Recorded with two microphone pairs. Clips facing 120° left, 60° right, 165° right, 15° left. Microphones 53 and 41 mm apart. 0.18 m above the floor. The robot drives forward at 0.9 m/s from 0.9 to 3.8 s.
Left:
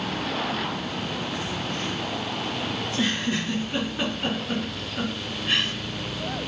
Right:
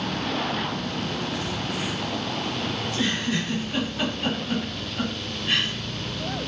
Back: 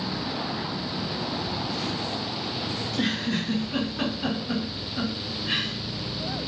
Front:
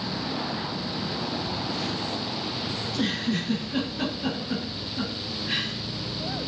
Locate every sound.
2.8 s a giggle: straight behind, 5 m